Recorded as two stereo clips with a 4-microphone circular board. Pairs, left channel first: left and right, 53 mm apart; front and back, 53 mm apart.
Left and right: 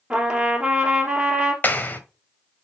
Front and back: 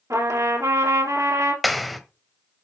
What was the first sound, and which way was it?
A trumpet, 165° right.